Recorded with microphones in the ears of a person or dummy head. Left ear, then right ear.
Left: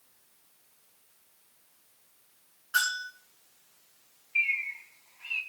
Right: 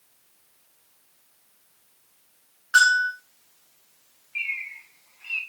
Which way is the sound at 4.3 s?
Centre (ahead or behind).